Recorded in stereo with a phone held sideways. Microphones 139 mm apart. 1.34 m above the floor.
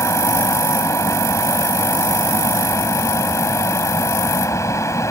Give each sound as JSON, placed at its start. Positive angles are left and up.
{"t": 0.0, "sound": "a fan", "side_deg": 20}